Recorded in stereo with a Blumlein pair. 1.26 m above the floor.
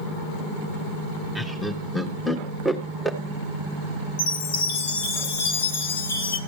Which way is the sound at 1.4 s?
Straight ahead.